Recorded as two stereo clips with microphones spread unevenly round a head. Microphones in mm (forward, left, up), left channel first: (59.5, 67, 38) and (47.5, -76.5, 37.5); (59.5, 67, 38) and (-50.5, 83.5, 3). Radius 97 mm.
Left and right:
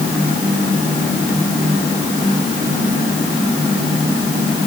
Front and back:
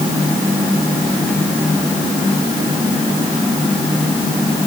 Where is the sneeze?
I don't hear a sneeze.